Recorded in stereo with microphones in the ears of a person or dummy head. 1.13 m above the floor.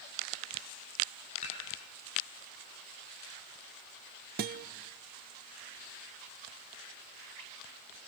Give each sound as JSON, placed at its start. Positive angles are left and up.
{"t": 1.4, "sound": "dishes clattering", "side_deg": 40, "distance_m": 8.0}
{"t": 4.4, "sound": "a guitar", "side_deg": -50, "distance_m": 0.9}